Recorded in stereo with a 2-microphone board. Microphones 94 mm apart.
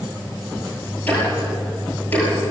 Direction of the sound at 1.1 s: 20° left (ahead or behind).